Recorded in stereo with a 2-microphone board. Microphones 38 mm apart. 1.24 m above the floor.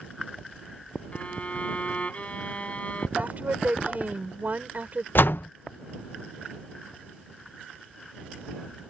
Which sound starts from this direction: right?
A woman speaking, at 3.2 s.